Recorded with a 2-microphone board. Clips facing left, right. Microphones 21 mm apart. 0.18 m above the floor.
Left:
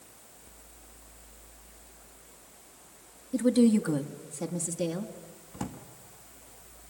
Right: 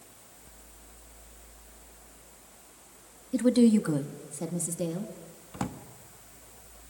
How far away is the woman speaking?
About 1.1 m.